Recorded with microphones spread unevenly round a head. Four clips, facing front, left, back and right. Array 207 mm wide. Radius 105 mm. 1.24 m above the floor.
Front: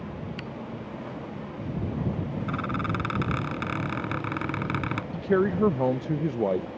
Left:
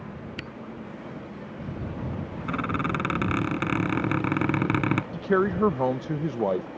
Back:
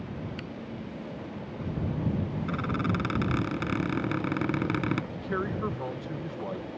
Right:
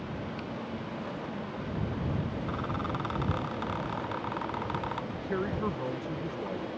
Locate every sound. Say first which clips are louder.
0.4 s a camera shutter: even, front 2 dB; 75° left
2.5 s a squeak: left 10 dB, even; 105° left
5.1 s a man speaking: left 10 dB, front 8 dB; 35° left